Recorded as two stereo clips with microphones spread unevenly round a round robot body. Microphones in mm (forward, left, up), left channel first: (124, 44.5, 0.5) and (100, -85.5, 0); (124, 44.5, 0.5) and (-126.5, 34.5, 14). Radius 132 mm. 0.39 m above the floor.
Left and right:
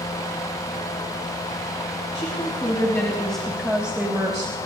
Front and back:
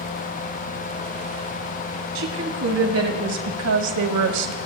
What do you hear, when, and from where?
2.1 s a woman speaking: 145° left, 2.5 m; by 4.6 s 165° right, 1.8 m